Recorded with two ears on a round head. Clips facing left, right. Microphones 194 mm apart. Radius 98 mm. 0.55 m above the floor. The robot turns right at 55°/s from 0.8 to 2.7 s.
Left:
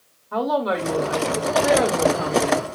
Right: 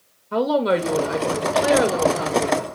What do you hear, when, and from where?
0.3 s a woman speaking: 80° right, 1.0 m; by 2.6 s 20° left, 1.0 m